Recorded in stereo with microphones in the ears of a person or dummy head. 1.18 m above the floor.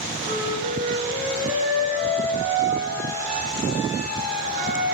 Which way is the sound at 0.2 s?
50° right (ahead or behind).